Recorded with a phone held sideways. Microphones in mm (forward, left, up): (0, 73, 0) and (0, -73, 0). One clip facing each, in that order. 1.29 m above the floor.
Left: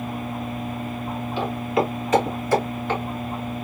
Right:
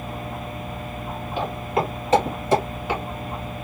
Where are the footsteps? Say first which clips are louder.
Left 1 dB; 50° right (ahead or behind), 1.8 m; by 3.0 s 5° right (ahead or behind), 1.2 m.